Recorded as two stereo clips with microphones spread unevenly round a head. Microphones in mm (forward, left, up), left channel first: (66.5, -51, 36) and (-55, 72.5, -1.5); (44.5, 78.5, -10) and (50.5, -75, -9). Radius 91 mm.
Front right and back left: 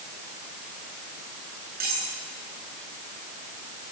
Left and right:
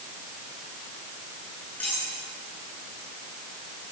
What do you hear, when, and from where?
1.8 s cutlery clinking: 175° left, 9 m